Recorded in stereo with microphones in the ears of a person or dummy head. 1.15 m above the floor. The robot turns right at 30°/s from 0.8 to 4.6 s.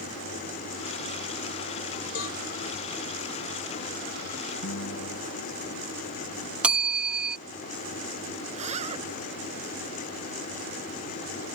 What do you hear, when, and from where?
2.1 s a cowbell: 80° left; by 2.4 s 85° left
4.6 s a guitar: 85° left
6.6 s a bell: 10° right (ahead or behind)
8.5 s a zipper: 30° right (ahead or behind)